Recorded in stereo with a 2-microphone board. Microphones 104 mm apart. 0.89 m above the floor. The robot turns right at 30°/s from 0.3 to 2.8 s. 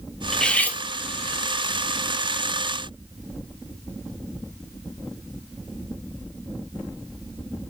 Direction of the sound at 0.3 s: 5° left (ahead or behind).